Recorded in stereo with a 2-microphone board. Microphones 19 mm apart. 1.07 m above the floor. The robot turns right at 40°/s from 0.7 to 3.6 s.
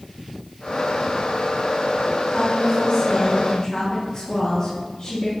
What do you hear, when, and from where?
2.3 s a woman speaking: 90° left, 1.1 m; by 5.3 s 140° left, 1.1 m